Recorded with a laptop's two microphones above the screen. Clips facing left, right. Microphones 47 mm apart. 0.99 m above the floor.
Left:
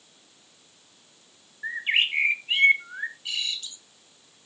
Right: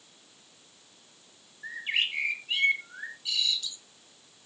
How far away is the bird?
About 0.8 m.